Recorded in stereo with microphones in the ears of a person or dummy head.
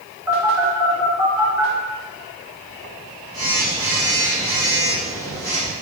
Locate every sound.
0.3 s a phone buzzing: 10° right (ahead or behind), 0.9 m